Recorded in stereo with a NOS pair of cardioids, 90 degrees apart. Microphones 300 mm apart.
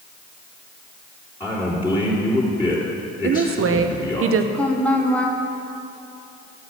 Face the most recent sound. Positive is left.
turn(degrees=5)